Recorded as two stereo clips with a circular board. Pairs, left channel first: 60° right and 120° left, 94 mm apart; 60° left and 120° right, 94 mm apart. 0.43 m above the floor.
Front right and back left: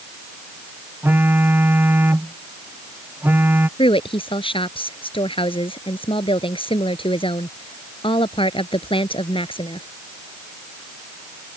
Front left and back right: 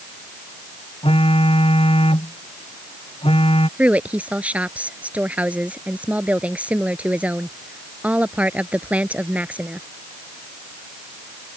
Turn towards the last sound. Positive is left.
turn(degrees=-45)